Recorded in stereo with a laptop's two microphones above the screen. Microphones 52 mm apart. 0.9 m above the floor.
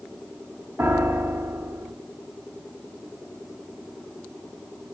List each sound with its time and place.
0.8 s a piano: 45° right (ahead or behind), 0.6 m